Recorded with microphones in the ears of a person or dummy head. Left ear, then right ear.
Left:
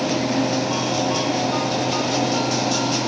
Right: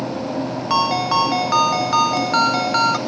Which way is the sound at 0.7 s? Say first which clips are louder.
Right 4 dB; 60° right (ahead or behind).